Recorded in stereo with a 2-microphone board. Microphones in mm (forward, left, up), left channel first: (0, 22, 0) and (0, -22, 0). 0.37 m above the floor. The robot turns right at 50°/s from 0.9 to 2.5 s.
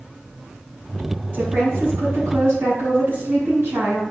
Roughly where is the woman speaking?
Behind right.